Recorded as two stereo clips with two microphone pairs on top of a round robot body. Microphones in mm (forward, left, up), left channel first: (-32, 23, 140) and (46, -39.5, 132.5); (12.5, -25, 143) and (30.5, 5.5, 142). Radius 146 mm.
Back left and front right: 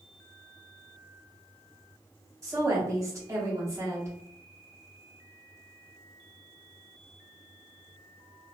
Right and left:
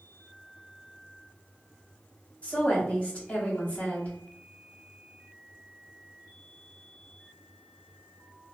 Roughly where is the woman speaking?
Right.